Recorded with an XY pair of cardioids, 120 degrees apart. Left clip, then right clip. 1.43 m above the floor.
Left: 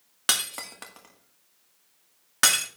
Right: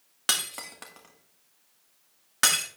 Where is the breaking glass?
10° left, 1.9 m.